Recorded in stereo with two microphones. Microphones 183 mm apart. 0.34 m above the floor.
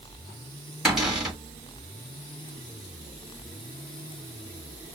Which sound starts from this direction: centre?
A cupboard door, at 0.8 s.